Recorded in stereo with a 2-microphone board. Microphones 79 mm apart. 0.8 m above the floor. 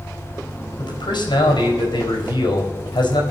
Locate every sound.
0.8 s a man speaking: 75° left (ahead or behind), 4 m